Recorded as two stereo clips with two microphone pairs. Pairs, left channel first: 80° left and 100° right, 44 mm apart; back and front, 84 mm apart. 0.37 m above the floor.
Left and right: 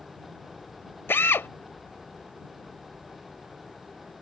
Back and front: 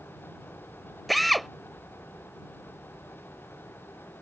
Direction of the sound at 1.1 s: 85° left.